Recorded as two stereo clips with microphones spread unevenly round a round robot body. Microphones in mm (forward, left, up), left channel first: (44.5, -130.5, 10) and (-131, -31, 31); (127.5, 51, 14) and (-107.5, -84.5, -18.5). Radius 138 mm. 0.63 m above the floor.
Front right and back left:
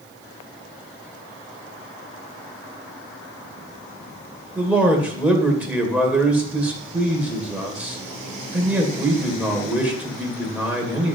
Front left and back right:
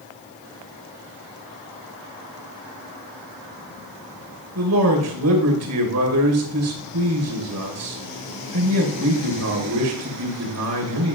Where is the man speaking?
125° right, 2.5 m.